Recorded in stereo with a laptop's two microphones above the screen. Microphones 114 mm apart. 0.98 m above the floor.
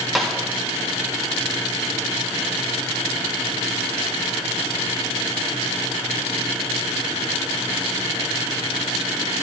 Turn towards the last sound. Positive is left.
turn(degrees=0)  # may be behind; listen again after turning